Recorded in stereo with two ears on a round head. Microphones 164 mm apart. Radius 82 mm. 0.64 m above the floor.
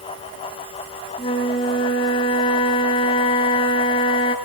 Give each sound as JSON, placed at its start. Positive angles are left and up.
{"t": 1.2, "sound": "a flute", "side_deg": 30, "distance_m": 3.0}